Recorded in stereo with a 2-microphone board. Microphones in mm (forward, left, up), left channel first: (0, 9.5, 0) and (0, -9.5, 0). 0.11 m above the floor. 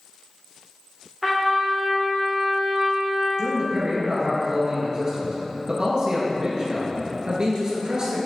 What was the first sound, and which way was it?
A trumpet, 10° left (ahead or behind).